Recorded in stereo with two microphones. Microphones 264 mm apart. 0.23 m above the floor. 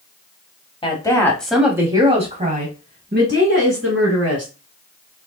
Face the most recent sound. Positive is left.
turn(degrees=-60)  # may be behind; listen again after turning